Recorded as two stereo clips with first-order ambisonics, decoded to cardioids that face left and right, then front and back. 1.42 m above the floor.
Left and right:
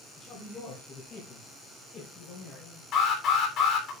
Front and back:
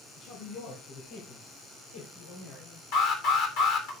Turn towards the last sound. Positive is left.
turn(degrees=40)